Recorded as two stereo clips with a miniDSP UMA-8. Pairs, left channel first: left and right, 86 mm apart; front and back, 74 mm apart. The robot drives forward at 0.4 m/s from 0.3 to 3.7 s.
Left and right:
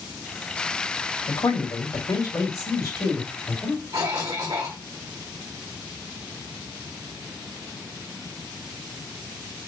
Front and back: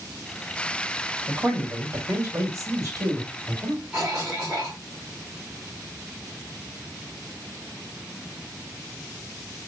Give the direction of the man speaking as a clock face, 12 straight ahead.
8 o'clock.